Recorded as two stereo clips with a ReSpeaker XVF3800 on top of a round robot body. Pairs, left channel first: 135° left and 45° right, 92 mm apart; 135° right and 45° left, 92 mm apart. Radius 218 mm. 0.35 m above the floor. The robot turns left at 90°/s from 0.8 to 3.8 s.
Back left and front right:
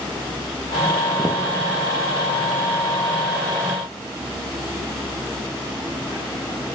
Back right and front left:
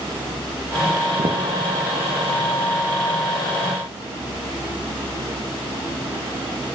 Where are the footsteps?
15° left, 1.9 m; by 1.4 s straight ahead, 1.9 m.